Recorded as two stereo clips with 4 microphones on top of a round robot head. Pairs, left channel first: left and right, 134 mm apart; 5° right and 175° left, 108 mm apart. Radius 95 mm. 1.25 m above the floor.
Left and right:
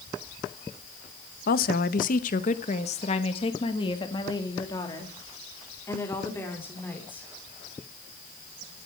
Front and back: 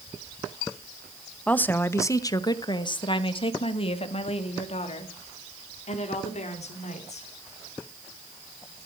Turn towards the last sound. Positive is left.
turn(degrees=10)